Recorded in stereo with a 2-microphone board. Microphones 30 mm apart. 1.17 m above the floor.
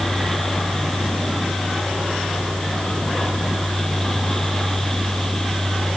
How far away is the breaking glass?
No breaking glass in this recording.